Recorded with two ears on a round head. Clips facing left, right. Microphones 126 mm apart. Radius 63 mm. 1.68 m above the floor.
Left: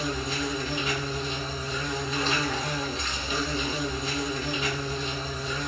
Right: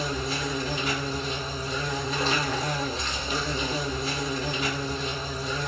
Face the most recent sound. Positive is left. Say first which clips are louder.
# even
turn(degrees=-35)  # may be behind; listen again after turning